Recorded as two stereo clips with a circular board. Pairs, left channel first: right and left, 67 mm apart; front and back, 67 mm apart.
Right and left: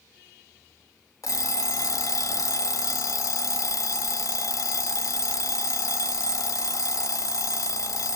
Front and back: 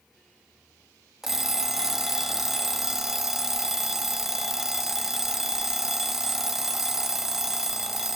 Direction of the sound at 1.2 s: 95° right.